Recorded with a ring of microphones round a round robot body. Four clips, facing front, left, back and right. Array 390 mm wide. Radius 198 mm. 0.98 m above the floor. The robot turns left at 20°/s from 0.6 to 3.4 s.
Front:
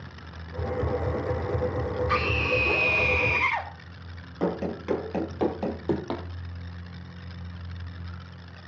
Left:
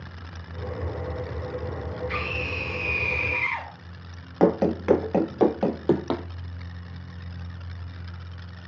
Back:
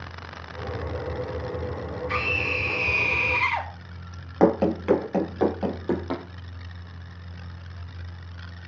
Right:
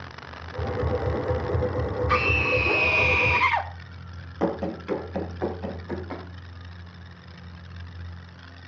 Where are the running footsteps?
140° left, 1.3 m; by 6.2 s 85° left, 2 m.